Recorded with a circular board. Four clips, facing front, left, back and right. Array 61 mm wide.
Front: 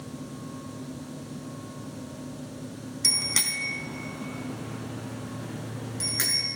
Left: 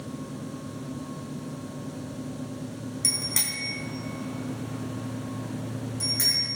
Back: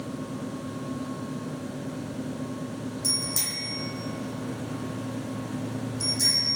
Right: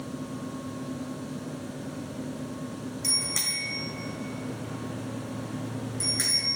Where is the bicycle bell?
10° left, 3 m; by 6.5 s 15° right, 5 m.